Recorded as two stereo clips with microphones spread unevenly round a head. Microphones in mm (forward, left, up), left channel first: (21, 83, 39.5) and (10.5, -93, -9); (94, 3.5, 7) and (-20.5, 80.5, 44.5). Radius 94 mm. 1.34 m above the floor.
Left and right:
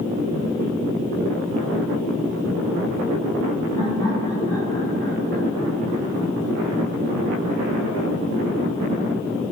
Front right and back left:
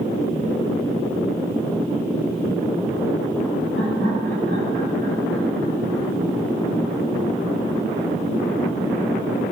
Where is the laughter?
160° left, 10 m; by 6.1 s 150° left, 9 m.